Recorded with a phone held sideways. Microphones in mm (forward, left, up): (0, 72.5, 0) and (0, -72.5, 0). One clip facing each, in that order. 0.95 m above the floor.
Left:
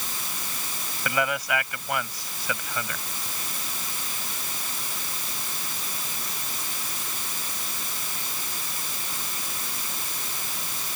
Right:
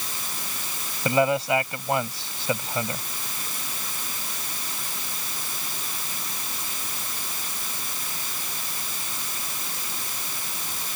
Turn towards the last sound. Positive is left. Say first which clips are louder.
# right 6 dB
turn(degrees=-25)  # may be behind; listen again after turning